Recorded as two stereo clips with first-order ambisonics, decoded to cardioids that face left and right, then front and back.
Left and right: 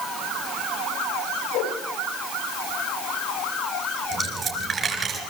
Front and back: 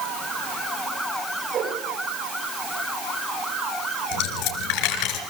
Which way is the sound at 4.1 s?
25° right.